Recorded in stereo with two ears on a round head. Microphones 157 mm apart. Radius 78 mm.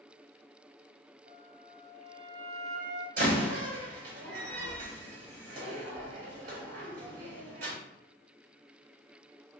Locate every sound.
1.3 s a flute: 45° right (ahead or behind), 1.0 m
3.2 s a door slam: 55° right (ahead or behind), 1.8 m